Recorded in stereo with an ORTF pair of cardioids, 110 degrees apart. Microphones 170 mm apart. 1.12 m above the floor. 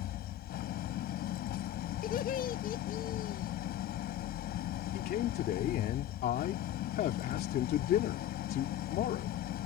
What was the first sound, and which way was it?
An engine running, 70° left.